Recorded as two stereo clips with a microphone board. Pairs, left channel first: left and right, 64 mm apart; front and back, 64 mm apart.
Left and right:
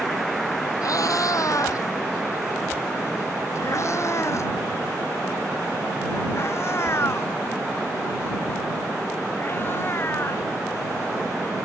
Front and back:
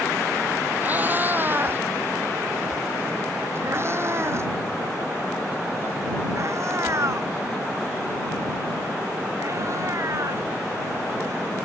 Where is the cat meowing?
115° left; by 10.5 s 140° left.